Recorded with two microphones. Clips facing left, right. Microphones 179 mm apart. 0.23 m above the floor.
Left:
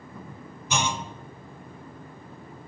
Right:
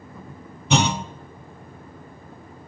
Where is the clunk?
70° right (ahead or behind), 0.6 m.